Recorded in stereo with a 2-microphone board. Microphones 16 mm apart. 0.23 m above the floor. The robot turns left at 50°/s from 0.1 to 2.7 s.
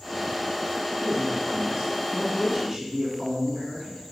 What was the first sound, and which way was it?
A man speaking, 80° right.